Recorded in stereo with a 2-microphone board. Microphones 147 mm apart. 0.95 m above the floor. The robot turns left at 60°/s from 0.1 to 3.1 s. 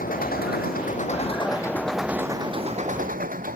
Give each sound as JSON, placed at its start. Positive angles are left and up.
{"t": 0.0, "sound": "an engine running", "azimuth_deg": 110}